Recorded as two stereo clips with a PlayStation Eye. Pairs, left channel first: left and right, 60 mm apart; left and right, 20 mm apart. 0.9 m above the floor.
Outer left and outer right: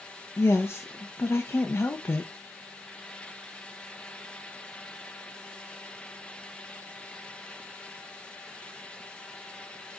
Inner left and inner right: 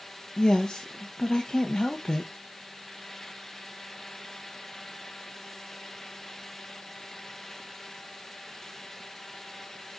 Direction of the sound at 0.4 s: 40° left (ahead or behind).